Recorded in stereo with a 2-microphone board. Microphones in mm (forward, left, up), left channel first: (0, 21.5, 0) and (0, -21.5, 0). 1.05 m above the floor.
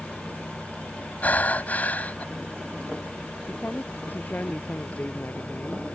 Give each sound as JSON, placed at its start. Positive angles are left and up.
{"t": 1.2, "sound": "breathing", "side_deg": 40}
{"t": 3.5, "sound": "a woman speaking", "side_deg": 45}